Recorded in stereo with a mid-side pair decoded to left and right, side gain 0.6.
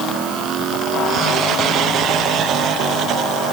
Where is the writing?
I don't hear writing.